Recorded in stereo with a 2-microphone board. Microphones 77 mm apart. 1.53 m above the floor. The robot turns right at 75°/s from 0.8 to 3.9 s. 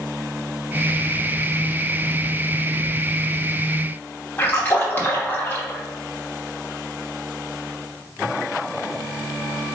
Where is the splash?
25° left (ahead or behind), 1.1 m.